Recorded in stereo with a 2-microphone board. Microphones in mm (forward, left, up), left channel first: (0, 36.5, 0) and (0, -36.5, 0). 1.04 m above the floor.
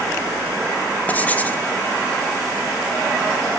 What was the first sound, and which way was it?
Writing, 20° left (ahead or behind).